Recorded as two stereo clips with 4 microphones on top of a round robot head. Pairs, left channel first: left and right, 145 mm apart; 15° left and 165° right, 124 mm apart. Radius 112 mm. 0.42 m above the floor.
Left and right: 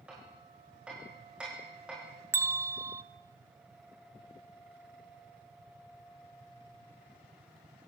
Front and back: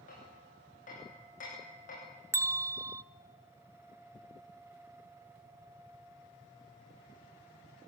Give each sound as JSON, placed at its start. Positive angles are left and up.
{"t": 0.1, "sound": "hammering", "azimuth_deg": -5, "distance_m": 9.0}
{"t": 2.3, "sound": "a bell", "azimuth_deg": -135, "distance_m": 0.9}